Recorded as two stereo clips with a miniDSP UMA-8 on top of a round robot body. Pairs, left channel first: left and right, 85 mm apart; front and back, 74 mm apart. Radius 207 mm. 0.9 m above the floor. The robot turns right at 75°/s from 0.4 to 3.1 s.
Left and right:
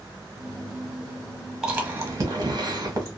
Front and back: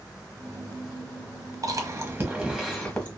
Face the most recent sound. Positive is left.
turn(degrees=-60)